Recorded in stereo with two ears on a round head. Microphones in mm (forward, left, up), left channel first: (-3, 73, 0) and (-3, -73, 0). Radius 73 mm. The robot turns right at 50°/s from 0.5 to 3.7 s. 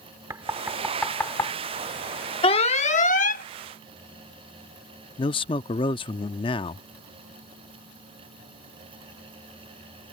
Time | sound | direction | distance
0.3 | knocking | 20° right (ahead or behind) | ?
2.4 | an alarm | 45° left | ?
5.2 | a man speaking | 30° left (ahead or behind) | ?